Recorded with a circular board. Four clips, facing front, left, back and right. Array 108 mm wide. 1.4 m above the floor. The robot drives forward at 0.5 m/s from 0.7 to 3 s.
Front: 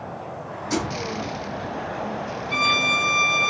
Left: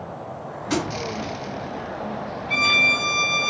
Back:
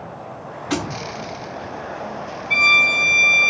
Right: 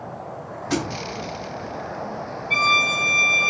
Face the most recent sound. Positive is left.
turn(degrees=175)